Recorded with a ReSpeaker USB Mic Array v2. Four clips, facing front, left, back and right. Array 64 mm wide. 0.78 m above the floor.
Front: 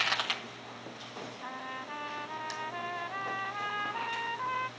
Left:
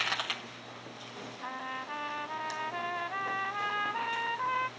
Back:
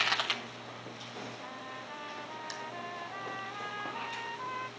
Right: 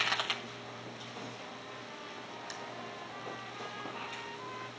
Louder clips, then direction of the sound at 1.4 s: Left 7 dB, front 3 dB; 70° left.